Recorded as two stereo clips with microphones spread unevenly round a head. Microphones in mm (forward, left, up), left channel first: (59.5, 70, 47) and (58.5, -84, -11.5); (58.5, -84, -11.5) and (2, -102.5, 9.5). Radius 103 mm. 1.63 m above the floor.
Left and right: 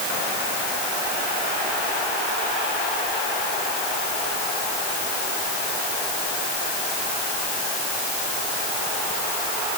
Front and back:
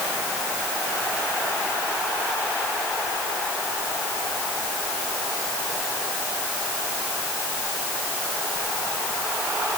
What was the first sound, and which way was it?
Only background noise.